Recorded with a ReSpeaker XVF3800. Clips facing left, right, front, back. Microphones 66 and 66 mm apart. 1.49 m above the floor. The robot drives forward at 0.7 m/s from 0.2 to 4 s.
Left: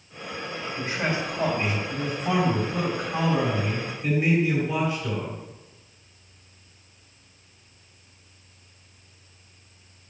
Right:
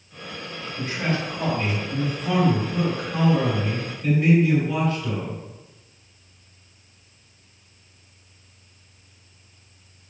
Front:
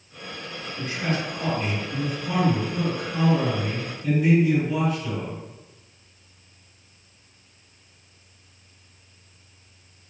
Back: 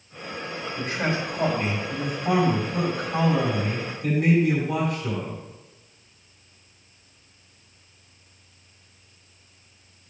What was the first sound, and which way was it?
A man speaking, 155° left.